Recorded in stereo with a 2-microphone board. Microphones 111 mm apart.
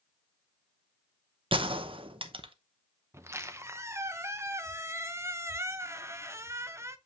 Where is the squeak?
25° right (ahead or behind), 0.5 m.